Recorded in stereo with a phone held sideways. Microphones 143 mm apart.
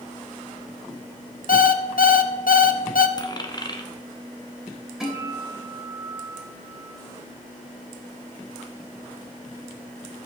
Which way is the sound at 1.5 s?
75° left (ahead or behind).